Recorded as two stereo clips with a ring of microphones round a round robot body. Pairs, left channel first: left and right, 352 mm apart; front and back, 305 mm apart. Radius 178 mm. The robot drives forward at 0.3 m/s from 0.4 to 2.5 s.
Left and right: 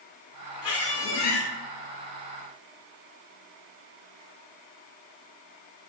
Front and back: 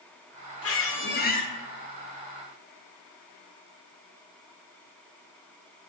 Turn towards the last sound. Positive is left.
turn(degrees=105)